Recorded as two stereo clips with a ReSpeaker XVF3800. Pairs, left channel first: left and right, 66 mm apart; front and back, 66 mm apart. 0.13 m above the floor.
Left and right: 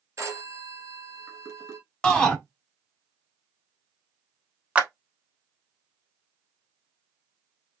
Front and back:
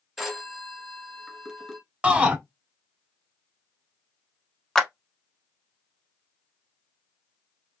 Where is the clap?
75° right, 0.9 m.